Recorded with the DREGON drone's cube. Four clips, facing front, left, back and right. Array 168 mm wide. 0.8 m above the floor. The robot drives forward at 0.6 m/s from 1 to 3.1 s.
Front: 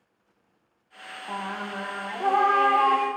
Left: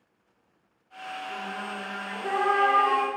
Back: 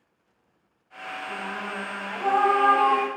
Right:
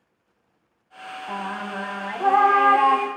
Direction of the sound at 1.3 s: 60° right.